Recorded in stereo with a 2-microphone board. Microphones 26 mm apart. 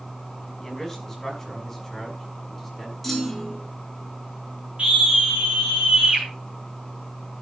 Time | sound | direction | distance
0.6 | a man speaking | 10° left (ahead or behind) | 4.5 m
3.0 | a clunk | 5° left (ahead or behind) | 3 m
4.8 | a scream | 45° right (ahead or behind) | 4.5 m